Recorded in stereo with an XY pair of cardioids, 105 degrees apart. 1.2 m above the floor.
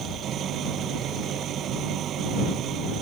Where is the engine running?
65° right.